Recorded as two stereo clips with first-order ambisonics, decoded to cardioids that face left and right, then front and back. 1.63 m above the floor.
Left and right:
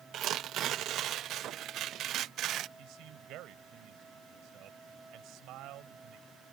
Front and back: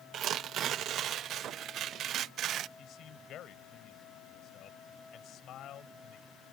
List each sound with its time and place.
0.1 s tearing paper: 130° right
2.8 s a man speaking: 50° right